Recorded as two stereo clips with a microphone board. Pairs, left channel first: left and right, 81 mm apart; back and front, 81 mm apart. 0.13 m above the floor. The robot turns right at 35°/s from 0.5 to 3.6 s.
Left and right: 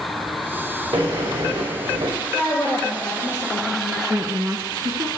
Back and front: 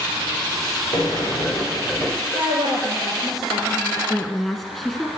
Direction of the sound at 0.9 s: 120° right.